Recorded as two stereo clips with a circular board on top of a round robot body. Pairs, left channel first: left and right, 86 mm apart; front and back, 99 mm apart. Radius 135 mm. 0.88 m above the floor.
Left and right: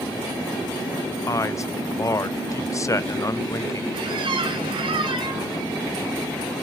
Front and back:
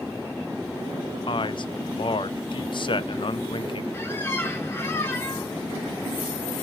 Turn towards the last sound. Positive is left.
turn(degrees=-70)